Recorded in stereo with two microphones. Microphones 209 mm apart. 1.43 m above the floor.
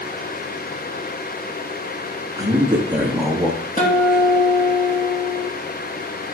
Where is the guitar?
40° left (ahead or behind), 3 m.